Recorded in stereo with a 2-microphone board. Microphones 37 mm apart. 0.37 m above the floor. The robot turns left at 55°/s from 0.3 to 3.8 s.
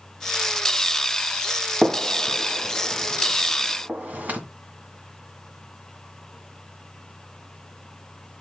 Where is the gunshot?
20° right (ahead or behind), 1.7 m; by 4.4 s 50° right (ahead or behind), 1.7 m.